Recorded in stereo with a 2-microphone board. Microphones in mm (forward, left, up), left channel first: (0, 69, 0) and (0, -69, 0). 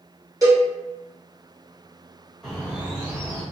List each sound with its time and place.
0.4 s a cowbell: 25° right (ahead or behind), 1.4 m
2.4 s a bird: centre (ahead or behind), 1.6 m